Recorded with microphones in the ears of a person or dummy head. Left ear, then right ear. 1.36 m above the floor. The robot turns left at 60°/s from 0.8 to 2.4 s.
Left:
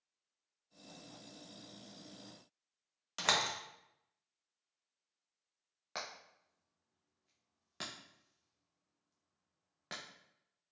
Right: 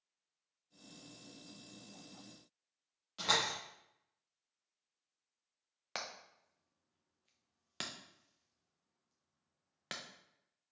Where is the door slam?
45° left (ahead or behind), 1.0 m.